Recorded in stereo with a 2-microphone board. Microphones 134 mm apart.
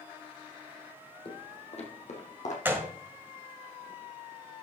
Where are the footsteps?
40° left (ahead or behind), 1.8 m; by 2.5 s 65° left (ahead or behind), 2.5 m.